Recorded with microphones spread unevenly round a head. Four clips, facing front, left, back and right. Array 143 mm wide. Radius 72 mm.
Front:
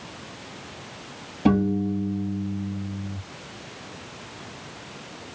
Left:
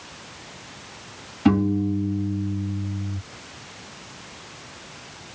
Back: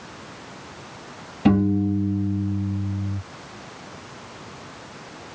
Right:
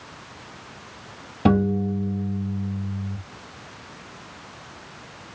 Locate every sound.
1.4 s a piano: 90° right, 3 m